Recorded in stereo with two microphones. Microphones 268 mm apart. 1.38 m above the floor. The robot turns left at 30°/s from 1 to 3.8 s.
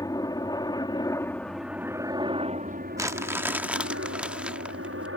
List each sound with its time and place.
0.0 s a helicopter: 15° left (ahead or behind); by 5.2 s 55° right (ahead or behind)
3.0 s crumpling: 10° right (ahead or behind); by 5.1 s 5° right (ahead or behind)